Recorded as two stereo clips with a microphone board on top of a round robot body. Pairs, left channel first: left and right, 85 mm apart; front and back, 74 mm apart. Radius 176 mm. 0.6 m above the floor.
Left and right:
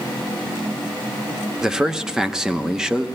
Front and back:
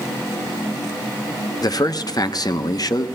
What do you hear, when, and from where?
1.6 s a man speaking: 10° right, 1.1 m